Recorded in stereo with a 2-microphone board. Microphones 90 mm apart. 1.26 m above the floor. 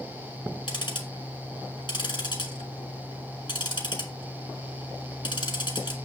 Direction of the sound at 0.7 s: 60° left (ahead or behind).